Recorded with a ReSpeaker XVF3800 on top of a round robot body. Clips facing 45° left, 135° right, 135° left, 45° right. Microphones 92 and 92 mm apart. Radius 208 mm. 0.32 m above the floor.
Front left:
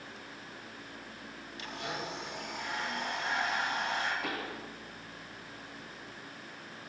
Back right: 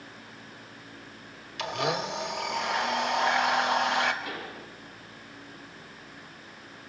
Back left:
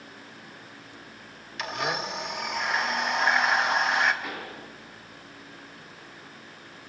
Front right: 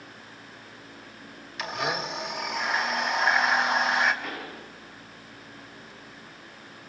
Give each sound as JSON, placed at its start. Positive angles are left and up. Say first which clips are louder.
{"t": 1.6, "sound": "a blender", "louder": "back right 10 dB, even", "azimuth_deg": -130, "distance_m": 2.0}
{"t": 4.2, "sound": "a pop", "louder": "even, even", "azimuth_deg": 50, "distance_m": 9.0}